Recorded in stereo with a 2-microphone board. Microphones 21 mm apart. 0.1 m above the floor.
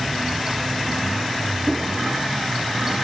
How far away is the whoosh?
About 1.7 m.